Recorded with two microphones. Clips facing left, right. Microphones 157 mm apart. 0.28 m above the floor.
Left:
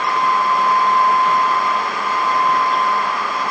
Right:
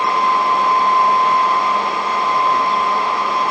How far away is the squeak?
I don't hear a squeak.